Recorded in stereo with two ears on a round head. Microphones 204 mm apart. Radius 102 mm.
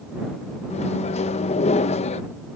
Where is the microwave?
30° left (ahead or behind).